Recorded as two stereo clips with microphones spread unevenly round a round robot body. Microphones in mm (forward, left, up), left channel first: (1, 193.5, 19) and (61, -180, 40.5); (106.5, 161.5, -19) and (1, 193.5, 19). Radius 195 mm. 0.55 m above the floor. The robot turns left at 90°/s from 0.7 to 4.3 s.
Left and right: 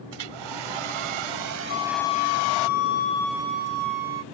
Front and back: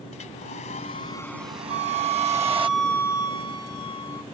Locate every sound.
0.1 s a hair dryer: 55° right; by 2.7 s 125° left
1.7 s a flute: 155° left; by 4.2 s 75° right